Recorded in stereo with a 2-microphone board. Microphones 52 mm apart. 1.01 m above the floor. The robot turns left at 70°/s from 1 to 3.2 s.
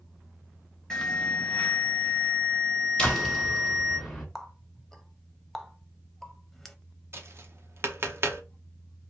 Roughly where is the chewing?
I don't hear chewing.